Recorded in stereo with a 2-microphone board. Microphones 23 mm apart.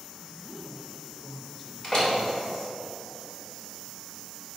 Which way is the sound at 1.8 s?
35° left (ahead or behind).